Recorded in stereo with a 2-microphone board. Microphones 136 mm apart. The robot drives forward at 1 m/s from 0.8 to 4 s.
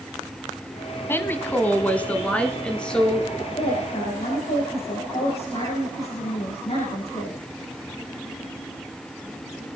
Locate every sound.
1.1 s a woman speaking: 15° left (ahead or behind), 1.1 m; by 3.3 s 5° left (ahead or behind), 2.5 m
3.4 s a woman speaking: 55° left (ahead or behind), 9 m; by 7.4 s 50° left (ahead or behind), 9.5 m